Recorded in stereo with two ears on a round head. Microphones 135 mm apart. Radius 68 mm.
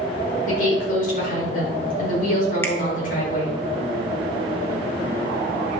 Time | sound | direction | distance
0.5 | a woman speaking | 55° left (ahead or behind) | 4.5 m
2.6 | a finger snap | 15° left (ahead or behind) | 1.6 m